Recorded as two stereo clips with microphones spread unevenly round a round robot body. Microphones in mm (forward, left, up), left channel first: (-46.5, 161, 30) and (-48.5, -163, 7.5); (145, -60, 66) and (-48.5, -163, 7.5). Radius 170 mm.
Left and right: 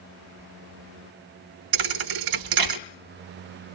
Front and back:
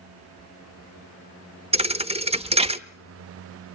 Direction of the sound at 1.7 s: 80° right.